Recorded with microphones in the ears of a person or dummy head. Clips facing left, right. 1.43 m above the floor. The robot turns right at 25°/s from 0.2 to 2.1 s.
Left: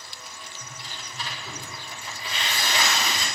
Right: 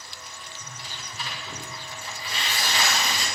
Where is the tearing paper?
20° right, 6.5 m; by 3.3 s 20° left, 6.5 m.